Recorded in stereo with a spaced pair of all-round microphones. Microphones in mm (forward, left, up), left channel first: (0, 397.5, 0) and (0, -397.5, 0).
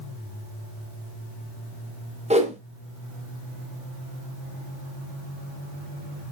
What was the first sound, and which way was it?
A whoosh, 10° right (ahead or behind).